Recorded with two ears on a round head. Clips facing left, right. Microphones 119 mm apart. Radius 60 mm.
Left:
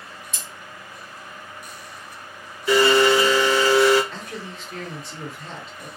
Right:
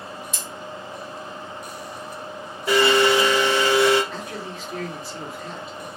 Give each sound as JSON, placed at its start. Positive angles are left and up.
{"t": 0.3, "sound": "scissors", "side_deg": -55, "distance_m": 1.4}
{"t": 2.7, "sound": "a blender", "side_deg": -50, "distance_m": 1.3}
{"t": 4.1, "sound": "a man speaking", "side_deg": 0, "distance_m": 1.5}